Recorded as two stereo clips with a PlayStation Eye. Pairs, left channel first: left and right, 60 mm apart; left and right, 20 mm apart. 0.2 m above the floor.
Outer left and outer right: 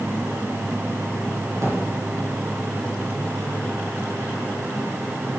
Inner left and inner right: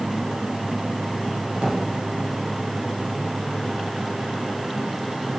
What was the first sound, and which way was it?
A drawer, 60° right (ahead or behind).